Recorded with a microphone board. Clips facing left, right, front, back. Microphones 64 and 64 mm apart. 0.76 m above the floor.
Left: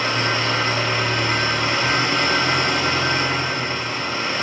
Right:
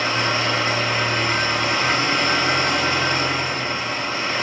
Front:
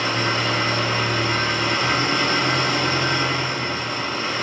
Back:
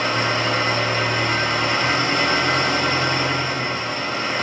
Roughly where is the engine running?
Behind.